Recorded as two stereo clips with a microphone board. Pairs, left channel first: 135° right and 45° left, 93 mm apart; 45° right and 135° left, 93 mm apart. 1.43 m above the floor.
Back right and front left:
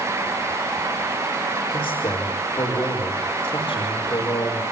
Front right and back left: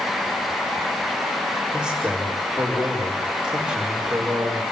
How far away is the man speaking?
About 5 m.